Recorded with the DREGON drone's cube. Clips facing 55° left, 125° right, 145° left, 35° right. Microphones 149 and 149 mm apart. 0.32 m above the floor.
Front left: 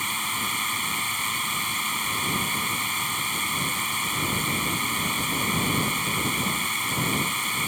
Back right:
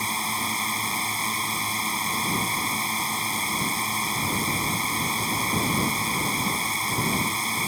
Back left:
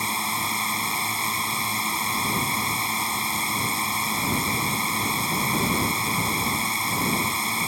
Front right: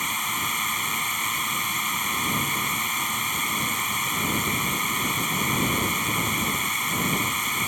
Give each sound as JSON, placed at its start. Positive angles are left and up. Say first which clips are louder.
{"t": 0.0, "sound": "a drone", "louder": "back right 3 dB, back left 3 dB", "azimuth_deg": -165}